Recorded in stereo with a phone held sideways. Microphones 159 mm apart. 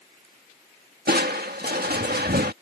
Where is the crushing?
75° right (ahead or behind).